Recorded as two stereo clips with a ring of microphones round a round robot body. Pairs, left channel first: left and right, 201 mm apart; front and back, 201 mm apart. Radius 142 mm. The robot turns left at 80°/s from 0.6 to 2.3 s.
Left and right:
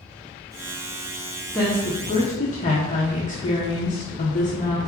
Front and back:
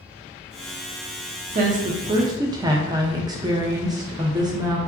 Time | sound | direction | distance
1.5 | a woman speaking | straight behind | 0.6 m